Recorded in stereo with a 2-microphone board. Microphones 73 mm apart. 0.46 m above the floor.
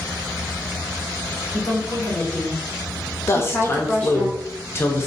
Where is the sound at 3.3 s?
30° left (ahead or behind), 0.8 m.